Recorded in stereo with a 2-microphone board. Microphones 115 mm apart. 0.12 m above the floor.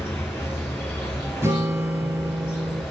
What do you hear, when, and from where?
0.0 s an insect: 20° left (ahead or behind), 3.5 m
1.4 s a guitar: 20° right (ahead or behind), 2.5 m